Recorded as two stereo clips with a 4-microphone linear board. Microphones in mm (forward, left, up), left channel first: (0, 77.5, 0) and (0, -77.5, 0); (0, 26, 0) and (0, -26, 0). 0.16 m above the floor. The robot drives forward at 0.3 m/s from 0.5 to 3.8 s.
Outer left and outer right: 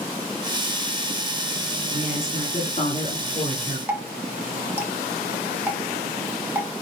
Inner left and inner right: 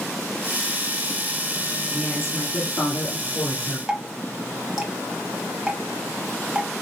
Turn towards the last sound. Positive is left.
turn(degrees=-10)  # may be behind; listen again after turning